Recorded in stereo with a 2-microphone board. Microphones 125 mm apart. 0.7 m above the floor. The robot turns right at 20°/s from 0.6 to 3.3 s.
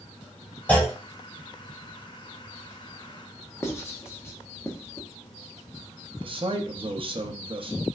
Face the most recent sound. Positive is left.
turn(degrees=-40)  # may be behind; listen again after turning